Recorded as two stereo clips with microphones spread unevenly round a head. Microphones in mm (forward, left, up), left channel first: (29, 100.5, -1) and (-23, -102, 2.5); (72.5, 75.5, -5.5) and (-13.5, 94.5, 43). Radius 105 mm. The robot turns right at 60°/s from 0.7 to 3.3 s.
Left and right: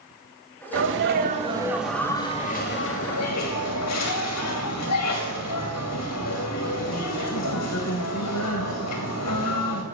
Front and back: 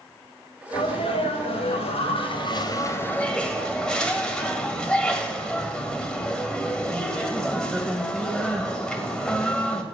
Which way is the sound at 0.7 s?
80° right.